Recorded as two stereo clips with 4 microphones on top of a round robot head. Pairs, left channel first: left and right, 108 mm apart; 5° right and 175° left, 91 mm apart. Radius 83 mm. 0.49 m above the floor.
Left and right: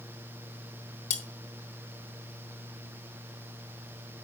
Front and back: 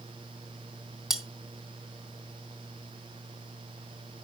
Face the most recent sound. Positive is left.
turn(degrees=90)